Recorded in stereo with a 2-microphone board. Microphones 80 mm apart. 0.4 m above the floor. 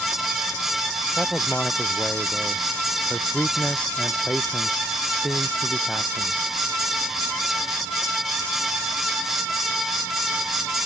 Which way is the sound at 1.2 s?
5° left (ahead or behind).